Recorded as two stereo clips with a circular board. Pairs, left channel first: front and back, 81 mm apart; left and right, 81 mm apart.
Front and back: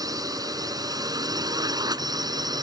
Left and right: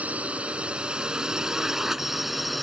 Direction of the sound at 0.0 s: 160° right.